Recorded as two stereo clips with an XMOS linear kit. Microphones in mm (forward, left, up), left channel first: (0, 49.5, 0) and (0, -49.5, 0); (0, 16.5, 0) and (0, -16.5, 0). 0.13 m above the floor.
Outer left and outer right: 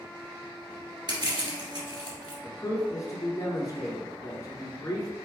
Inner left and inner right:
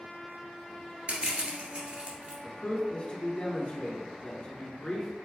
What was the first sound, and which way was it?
Crushing, 45° right (ahead or behind).